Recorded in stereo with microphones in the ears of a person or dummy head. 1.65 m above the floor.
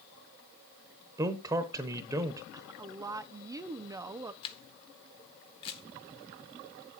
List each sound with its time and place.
1.2 s a man speaking: 25° right (ahead or behind), 0.9 m
2.5 s a woman speaking: 20° right (ahead or behind), 0.7 m
4.4 s a camera shutter: 30° left (ahead or behind), 1.0 m